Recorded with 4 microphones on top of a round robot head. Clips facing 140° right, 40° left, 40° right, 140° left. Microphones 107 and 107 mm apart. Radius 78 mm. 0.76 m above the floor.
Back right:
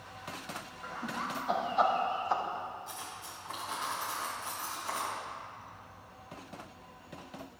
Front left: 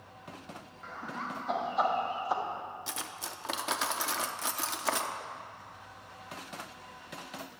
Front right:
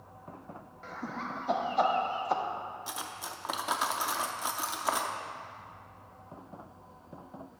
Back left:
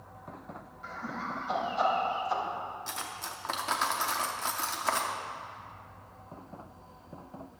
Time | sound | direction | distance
0.8 | laughter | 60° right | 2.5 m
2.9 | cutlery clinking | 40° left | 0.6 m